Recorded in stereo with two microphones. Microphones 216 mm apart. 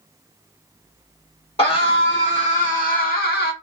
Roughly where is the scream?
Left.